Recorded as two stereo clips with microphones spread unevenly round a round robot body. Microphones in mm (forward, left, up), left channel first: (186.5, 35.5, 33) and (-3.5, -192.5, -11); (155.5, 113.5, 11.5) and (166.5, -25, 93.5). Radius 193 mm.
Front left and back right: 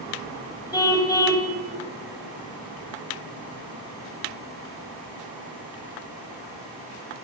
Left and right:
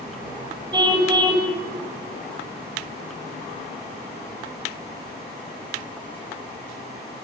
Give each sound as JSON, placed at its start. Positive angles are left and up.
{"t": 0.7, "sound": "a car horn", "azimuth_deg": -25, "distance_m": 7.5}